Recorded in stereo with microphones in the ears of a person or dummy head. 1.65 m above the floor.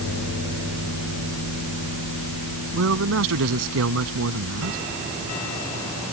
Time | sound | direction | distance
2.7 | a man speaking | 80° right | ?